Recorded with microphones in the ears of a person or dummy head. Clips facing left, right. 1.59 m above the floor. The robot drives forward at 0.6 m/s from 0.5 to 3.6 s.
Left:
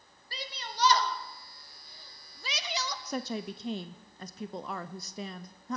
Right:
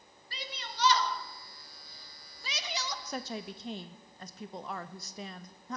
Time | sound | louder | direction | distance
0.3 | a shout | left 2 dB | 35° left (ahead or behind) | 2.5 m
3.0 | a woman speaking | left 7 dB | 70° left (ahead or behind) | 0.6 m